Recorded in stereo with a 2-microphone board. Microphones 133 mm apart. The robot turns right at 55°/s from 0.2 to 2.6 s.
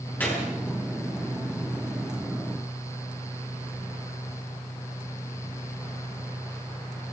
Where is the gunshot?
10° left (ahead or behind), 8.5 m; by 0.5 s 30° left (ahead or behind), 8.5 m.